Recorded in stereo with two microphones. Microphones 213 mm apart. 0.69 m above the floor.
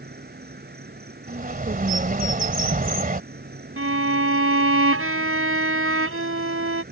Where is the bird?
40° right (ahead or behind).